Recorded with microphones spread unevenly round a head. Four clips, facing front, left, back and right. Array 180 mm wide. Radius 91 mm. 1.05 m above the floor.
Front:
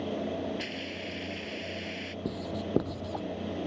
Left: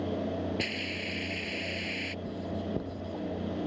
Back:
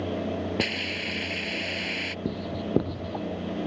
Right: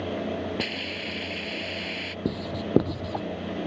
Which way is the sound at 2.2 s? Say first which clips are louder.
Right 7 dB, back 3 dB; 100° right.